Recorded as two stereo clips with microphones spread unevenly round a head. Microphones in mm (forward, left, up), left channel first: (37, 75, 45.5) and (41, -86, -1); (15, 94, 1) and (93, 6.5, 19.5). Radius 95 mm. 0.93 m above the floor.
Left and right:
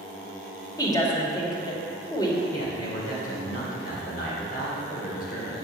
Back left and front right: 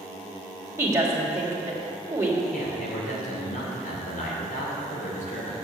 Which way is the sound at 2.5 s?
140° left.